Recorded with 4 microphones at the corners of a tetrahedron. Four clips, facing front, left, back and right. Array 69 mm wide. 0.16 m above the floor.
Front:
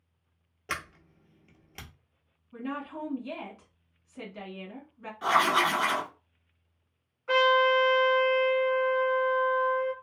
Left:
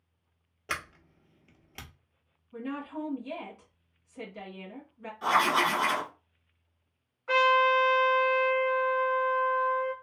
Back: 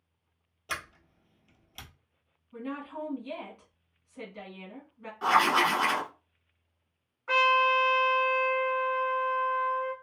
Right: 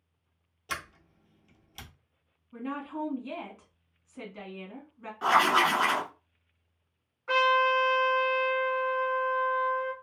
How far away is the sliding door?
About 0.9 m.